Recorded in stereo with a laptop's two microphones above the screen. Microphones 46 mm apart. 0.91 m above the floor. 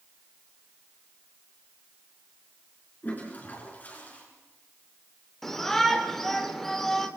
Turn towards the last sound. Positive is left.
turn(degrees=5)  # may be behind; listen again after turning